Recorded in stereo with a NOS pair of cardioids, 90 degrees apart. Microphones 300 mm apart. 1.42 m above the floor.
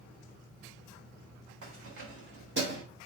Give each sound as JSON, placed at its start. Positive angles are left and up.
{"t": 1.6, "sound": "keys jangling", "azimuth_deg": -50, "distance_m": 3.5}